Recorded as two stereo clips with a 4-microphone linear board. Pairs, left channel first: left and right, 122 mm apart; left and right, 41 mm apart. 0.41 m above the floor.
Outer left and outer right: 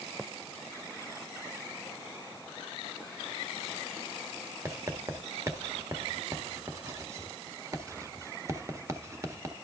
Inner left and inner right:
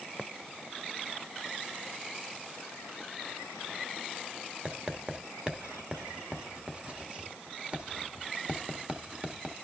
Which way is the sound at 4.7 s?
25° right (ahead or behind).